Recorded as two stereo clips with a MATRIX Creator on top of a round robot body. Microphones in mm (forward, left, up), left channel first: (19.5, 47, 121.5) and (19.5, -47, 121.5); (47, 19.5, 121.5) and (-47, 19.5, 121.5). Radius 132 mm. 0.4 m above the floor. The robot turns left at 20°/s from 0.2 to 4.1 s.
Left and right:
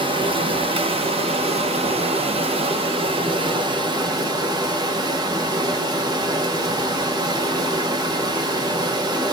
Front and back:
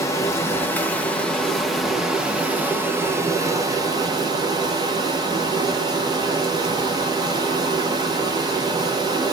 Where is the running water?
60° right, 0.7 m; by 9.3 s 135° right, 0.7 m.